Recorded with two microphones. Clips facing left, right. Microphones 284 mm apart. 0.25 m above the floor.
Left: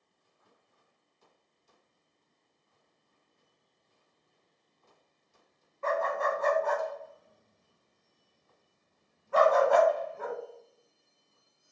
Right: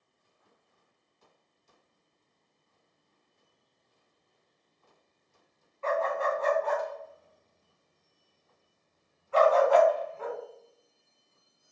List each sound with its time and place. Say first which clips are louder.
5.8 s a dog barking: right 1 dB; 50° left (ahead or behind), 0.6 m